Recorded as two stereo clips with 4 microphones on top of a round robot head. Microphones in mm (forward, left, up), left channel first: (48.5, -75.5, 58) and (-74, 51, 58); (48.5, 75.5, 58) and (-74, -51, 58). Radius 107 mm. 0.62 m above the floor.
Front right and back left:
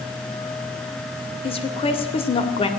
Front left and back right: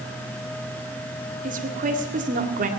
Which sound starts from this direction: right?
A woman speaking, at 1.4 s.